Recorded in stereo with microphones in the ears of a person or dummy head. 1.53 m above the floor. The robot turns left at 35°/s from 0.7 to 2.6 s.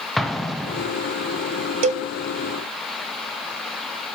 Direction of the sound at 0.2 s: Centre (ahead or behind).